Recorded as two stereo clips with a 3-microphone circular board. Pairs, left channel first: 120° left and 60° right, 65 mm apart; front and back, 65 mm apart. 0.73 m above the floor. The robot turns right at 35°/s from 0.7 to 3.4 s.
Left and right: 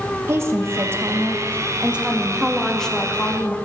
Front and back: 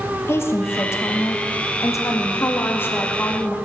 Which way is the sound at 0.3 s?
35° right.